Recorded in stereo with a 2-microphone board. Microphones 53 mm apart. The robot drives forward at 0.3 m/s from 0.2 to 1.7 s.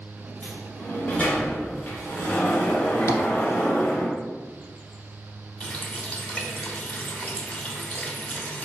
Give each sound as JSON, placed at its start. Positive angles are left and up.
{"t": 0.4, "sound": "a sliding door", "side_deg": 35, "distance_m": 1.4}
{"t": 3.1, "sound": "tapping", "side_deg": 65, "distance_m": 0.6}
{"t": 5.6, "sound": "a running tap", "side_deg": 30, "distance_m": 0.8}